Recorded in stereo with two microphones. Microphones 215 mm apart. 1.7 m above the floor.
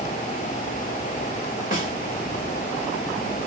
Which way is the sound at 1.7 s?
40° left (ahead or behind).